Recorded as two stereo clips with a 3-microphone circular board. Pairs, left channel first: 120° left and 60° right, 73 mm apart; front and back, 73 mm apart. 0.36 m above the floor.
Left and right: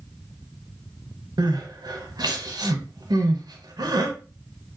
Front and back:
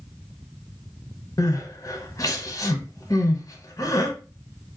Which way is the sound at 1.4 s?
40° right.